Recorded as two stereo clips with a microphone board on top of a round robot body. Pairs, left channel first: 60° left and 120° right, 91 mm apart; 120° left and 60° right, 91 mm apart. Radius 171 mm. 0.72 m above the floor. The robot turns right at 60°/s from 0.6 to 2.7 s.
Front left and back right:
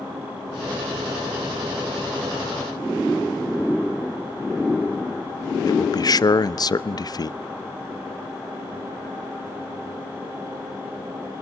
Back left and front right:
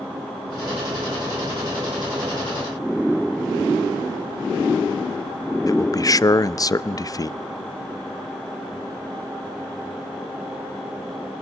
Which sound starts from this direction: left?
A man speaking, at 5.7 s.